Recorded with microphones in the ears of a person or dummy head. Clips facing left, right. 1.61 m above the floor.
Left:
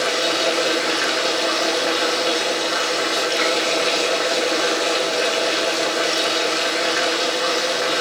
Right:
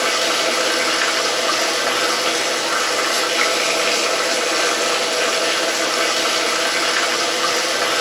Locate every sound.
0.0 s running water: 50° right (ahead or behind), 2 m